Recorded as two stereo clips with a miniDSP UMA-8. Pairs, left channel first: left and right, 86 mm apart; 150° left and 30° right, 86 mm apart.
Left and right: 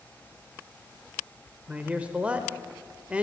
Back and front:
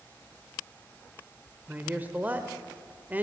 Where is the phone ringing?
No phone ringing in this recording.